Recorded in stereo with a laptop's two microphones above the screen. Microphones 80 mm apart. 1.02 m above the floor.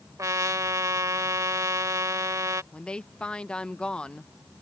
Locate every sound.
0.2 s a trumpet: 45° right (ahead or behind)
2.7 s a woman speaking: 10° left (ahead or behind)